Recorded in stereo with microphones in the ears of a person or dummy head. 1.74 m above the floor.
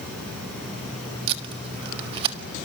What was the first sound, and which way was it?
Tape being pulled, 30° right (ahead or behind).